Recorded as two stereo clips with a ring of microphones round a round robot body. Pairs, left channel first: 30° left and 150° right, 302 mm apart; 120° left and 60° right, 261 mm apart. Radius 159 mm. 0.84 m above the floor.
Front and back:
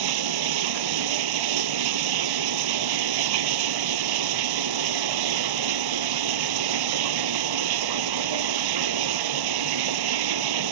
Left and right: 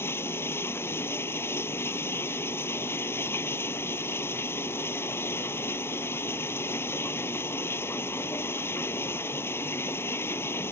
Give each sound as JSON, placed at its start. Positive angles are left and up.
{"t": 0.0, "sound": "running water", "azimuth_deg": -155}